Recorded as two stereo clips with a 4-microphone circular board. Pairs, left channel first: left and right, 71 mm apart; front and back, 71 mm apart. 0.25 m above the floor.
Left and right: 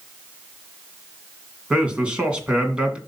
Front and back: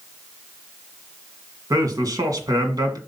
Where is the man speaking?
165° right, 2 m.